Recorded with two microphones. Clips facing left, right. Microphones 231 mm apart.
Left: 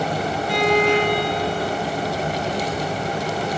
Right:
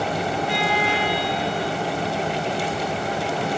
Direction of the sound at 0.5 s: 45° left (ahead or behind).